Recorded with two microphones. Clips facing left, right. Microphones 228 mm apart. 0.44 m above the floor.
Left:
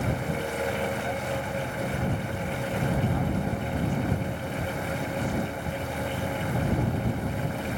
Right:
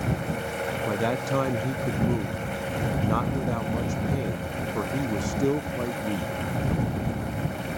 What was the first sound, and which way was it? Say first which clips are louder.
A man speaking: right 4 dB; 85° right.